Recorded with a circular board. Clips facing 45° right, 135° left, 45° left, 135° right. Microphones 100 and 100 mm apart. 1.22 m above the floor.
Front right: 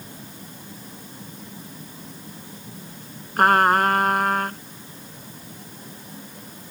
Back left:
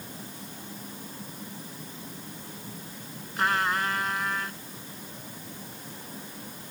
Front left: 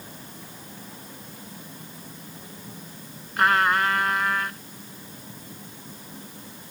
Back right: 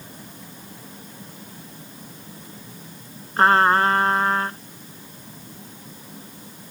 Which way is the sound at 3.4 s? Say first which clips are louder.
Front right 10 dB, back right 5 dB; 80° right.